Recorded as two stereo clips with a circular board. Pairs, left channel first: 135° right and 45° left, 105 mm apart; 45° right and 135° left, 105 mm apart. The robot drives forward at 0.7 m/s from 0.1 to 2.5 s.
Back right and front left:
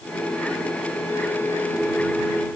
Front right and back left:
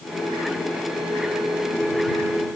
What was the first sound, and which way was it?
Only background noise.